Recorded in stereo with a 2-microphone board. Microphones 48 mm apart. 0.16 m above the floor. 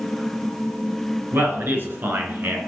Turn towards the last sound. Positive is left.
turn(degrees=-45)  # may be behind; listen again after turning